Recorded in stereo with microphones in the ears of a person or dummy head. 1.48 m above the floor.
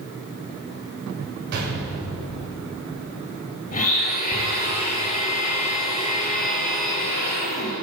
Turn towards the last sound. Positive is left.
turn(degrees=45)  # may be behind; listen again after turning